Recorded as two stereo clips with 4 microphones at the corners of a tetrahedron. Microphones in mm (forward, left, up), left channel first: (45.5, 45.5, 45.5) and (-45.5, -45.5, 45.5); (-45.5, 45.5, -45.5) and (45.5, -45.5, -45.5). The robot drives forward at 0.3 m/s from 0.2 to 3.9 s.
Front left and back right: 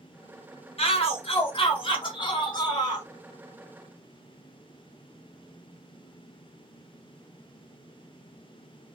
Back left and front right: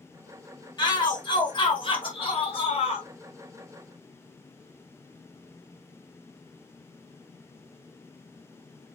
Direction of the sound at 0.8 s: 80° left.